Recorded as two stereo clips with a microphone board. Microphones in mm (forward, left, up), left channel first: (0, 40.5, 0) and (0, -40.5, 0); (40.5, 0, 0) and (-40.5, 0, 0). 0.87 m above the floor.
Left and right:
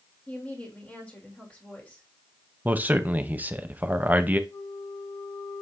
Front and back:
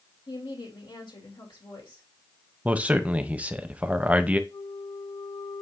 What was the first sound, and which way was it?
A woman speaking, 20° left.